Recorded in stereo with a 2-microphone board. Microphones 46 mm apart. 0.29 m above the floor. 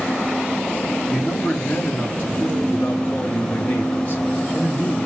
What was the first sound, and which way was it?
A man speaking, 40° left (ahead or behind).